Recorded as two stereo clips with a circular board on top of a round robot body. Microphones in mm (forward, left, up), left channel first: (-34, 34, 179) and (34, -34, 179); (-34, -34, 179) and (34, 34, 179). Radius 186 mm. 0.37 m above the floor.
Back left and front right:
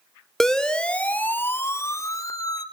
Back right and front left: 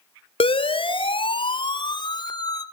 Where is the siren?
140° right, 2 m; by 2.6 s straight behind, 2 m.